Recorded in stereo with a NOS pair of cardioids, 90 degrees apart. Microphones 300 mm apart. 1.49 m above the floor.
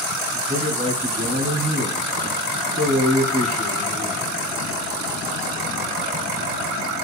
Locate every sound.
0.3 s a man speaking: 30° right, 3 m